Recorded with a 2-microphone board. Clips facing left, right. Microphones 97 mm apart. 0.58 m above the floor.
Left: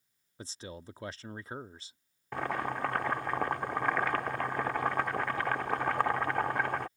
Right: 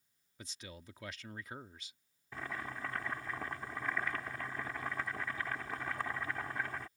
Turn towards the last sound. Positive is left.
turn(degrees=65)  # may be behind; listen again after turning